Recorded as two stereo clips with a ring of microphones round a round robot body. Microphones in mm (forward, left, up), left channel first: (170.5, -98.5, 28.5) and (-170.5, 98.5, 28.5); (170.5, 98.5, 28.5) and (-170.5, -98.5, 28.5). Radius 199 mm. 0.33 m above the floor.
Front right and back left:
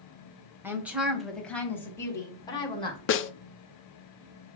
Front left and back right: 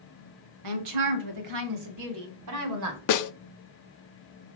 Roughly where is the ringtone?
I don't hear a ringtone.